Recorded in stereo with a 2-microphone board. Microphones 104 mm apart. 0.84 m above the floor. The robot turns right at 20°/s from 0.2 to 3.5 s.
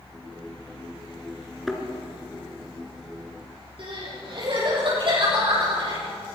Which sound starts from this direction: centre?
A thud, at 1.7 s.